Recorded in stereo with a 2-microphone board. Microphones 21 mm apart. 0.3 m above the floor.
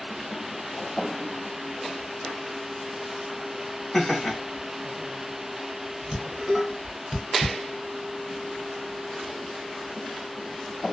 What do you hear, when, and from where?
3.9 s laughter: 5° left (ahead or behind), 1.0 m
6.1 s dishes clattering: 20° right (ahead or behind), 1.6 m